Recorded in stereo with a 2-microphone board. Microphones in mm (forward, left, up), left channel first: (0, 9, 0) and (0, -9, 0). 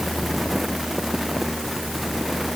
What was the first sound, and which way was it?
Only background noise.